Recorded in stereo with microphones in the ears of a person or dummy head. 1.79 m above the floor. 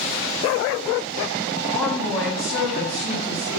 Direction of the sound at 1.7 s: 10° left (ahead or behind).